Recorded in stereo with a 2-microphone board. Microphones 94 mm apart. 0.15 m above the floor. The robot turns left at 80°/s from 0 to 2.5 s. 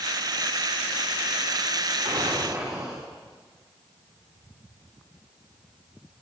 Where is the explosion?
105° right, 3.5 m; by 3.1 s 140° right, 3.5 m.